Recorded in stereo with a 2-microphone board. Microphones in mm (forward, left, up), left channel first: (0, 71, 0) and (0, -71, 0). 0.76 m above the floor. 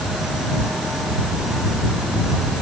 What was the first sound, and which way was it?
Only background noise.